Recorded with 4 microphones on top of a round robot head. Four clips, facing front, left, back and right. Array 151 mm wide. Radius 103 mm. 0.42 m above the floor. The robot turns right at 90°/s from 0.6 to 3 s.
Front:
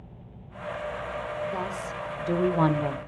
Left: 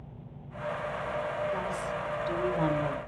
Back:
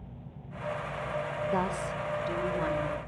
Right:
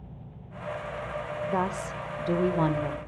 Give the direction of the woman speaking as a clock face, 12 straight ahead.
4 o'clock.